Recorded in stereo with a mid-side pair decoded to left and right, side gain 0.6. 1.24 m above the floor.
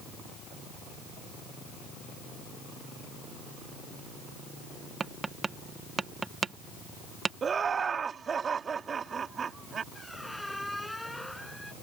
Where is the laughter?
35° right.